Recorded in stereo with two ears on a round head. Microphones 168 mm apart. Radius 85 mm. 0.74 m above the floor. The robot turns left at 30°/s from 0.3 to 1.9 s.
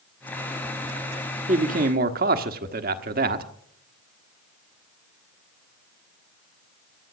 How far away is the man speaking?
About 1.3 m.